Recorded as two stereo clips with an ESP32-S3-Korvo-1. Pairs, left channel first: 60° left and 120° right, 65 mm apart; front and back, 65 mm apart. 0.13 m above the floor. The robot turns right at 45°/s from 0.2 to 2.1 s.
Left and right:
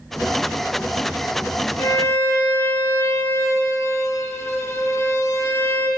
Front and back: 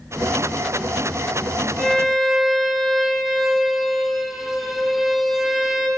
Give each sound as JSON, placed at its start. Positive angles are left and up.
{"t": 1.8, "sound": "a violin", "azimuth_deg": 80, "distance_m": 1.6}